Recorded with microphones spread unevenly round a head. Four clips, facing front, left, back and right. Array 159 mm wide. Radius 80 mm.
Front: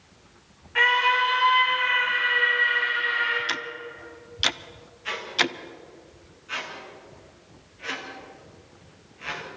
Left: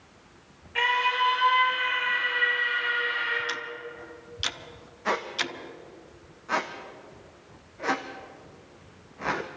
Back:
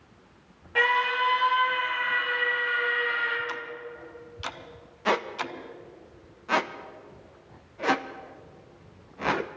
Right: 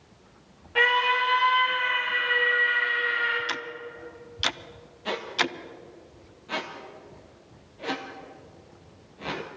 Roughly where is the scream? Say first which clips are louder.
Right 2 dB, front 3 dB; behind.